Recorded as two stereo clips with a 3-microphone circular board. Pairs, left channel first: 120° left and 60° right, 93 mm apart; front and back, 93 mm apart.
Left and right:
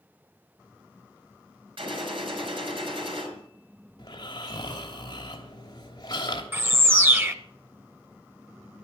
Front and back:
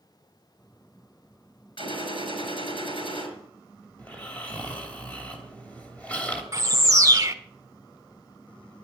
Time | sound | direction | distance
1.8 | a gunshot | 30° right | 5 m
4.0 | snoring | 75° left | 3 m
6.5 | a bird | 125° right | 1.0 m